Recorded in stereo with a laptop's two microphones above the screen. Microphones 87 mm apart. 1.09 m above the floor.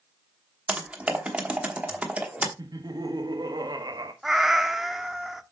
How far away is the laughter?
About 1.7 m.